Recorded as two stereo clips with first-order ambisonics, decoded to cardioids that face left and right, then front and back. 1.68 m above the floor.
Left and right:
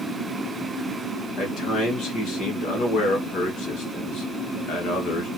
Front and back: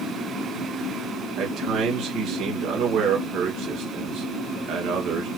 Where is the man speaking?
135° left, 3 m.